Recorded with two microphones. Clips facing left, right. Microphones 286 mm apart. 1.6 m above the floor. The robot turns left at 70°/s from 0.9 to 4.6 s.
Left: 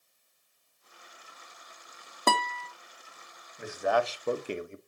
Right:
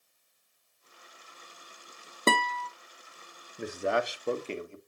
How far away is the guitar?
About 0.7 m.